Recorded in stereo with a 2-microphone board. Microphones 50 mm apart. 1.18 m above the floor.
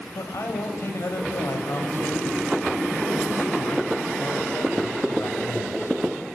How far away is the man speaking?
About 7.5 m.